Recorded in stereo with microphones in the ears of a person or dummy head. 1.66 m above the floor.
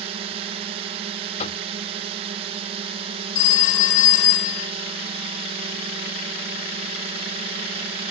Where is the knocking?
35° left (ahead or behind).